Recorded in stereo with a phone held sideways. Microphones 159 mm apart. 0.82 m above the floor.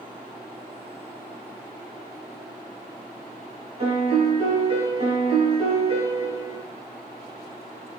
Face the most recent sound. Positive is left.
turn(degrees=-40)  # may be behind; listen again after turning